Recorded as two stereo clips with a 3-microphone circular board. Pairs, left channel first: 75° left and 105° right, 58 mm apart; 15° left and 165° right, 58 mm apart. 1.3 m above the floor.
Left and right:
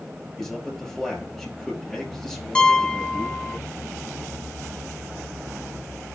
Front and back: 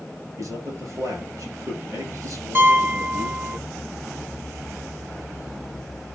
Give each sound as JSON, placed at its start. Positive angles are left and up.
{"t": 0.4, "sound": "a man speaking", "azimuth_deg": 165, "distance_m": 8.5}
{"t": 2.5, "sound": "a piano", "azimuth_deg": 145, "distance_m": 0.6}